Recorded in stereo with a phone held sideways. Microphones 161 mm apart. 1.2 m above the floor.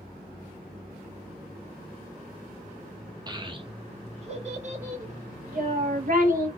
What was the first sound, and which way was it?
A child speaking, 25° right (ahead or behind).